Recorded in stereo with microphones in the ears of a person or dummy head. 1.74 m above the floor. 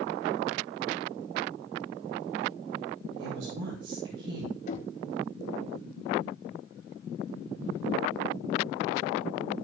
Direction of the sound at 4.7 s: 45° left (ahead or behind).